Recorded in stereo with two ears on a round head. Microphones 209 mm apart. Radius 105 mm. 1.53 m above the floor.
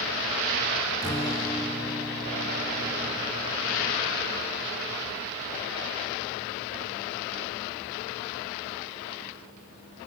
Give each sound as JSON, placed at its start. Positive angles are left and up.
{"t": 1.0, "sound": "a guitar", "side_deg": 15, "distance_m": 1.3}